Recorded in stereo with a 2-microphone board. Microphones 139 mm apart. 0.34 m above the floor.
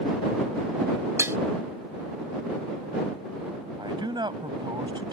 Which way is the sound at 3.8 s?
35° right (ahead or behind).